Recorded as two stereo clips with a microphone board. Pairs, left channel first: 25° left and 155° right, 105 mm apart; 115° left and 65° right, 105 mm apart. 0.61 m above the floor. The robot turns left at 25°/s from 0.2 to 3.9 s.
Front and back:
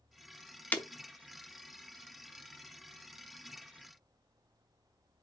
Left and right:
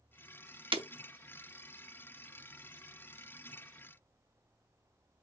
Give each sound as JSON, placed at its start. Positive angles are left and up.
{"t": 0.7, "sound": "breaking glass", "azimuth_deg": -50, "distance_m": 0.7}